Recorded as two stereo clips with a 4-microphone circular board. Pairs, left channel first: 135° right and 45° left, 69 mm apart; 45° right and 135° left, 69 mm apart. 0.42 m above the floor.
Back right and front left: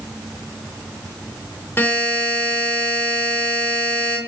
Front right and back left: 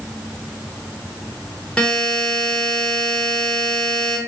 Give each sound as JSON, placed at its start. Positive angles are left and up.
{"t": 1.8, "sound": "a buzzer", "azimuth_deg": -110, "distance_m": 0.8}